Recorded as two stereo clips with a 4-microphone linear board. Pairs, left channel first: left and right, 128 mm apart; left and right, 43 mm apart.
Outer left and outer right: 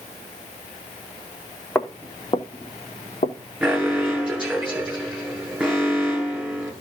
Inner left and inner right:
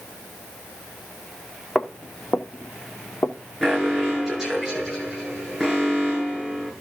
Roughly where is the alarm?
Centre.